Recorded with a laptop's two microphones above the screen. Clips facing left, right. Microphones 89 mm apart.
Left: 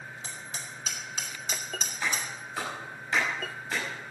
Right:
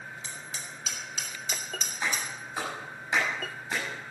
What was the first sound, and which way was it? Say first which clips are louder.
Hammering: even; 35° left (ahead or behind).